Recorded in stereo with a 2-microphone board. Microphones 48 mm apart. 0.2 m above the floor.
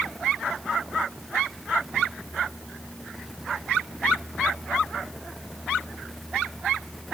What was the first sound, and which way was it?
Only background noise.